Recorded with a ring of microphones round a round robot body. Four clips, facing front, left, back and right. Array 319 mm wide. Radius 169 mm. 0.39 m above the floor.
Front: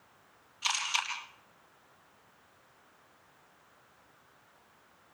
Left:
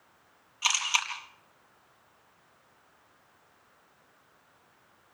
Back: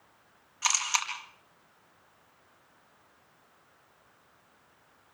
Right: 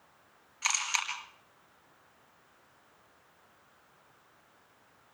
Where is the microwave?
I don't hear a microwave.